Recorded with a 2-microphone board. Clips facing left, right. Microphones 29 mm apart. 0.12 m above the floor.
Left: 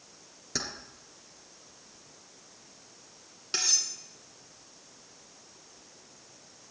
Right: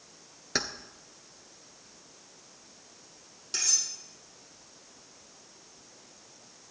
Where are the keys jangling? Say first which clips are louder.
Right 4 dB; 40° right (ahead or behind), 1.2 m.